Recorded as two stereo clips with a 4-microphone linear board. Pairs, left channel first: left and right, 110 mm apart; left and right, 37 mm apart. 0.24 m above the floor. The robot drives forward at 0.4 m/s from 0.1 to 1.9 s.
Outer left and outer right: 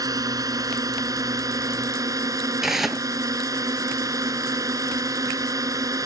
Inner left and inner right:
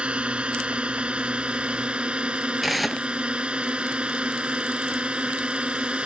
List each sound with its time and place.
0.0 s a drone: 35° right (ahead or behind); by 6.1 s 30° right (ahead or behind)
2.6 s tearing paper: 5° right (ahead or behind)